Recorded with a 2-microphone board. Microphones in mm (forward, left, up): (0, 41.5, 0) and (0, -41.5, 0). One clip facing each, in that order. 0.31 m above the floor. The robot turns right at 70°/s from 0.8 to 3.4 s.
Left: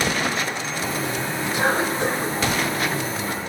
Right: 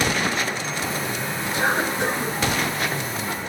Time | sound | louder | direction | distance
1.5 | a cough | left 1 dB | 165° left | 2.5 m